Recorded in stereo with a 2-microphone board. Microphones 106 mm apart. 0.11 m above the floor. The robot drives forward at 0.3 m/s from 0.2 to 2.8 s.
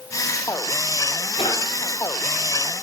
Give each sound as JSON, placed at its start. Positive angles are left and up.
{"t": 1.4, "sound": "a drawer", "side_deg": 70, "distance_m": 5.0}